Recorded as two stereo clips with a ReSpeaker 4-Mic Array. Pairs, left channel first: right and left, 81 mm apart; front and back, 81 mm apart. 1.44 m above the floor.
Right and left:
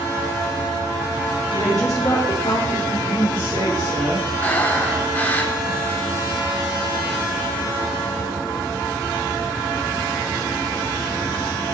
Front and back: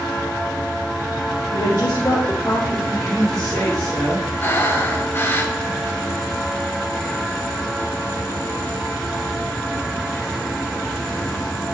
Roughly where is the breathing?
Ahead right.